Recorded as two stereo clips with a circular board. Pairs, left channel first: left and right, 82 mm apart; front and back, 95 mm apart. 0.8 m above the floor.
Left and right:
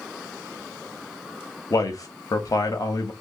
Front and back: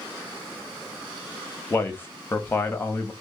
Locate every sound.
1.7 s a man speaking: 65° left, 0.7 m